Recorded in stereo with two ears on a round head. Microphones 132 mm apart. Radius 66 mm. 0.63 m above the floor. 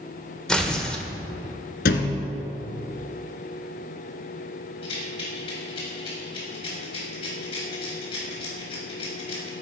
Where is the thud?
75° left (ahead or behind), 1.5 m.